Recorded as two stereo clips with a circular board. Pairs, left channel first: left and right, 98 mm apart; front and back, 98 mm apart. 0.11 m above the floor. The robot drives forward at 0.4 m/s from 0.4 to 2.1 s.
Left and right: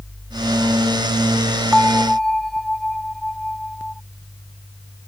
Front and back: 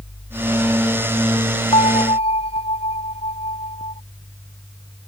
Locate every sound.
1.7 s a bell: 5° left